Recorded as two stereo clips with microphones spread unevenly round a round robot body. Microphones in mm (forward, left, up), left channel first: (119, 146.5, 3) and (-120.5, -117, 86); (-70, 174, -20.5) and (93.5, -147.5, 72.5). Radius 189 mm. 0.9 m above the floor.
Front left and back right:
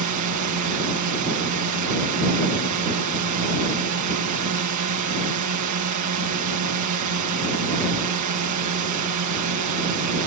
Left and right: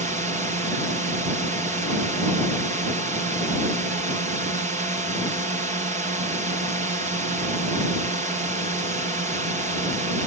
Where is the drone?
145° right.